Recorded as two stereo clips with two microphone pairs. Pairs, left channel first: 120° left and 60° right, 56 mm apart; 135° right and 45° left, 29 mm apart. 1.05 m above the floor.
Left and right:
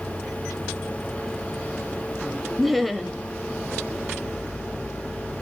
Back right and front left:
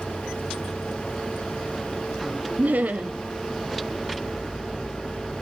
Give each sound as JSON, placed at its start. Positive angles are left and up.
{"t": 2.6, "sound": "laughter", "azimuth_deg": 30, "distance_m": 1.3}